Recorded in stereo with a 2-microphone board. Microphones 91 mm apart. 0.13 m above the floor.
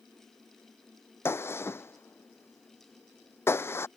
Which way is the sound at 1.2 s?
25° left (ahead or behind).